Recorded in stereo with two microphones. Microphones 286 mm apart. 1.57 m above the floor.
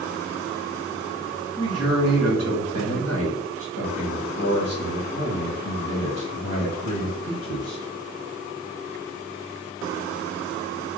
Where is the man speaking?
50° left (ahead or behind), 1.7 m.